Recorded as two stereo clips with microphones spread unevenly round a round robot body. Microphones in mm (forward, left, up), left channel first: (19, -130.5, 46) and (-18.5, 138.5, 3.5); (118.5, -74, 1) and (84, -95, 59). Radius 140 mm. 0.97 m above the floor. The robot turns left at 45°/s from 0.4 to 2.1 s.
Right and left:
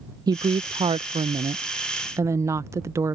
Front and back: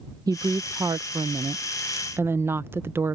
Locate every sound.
0.3 s a woman speaking: 130° left; by 3.1 s 50° left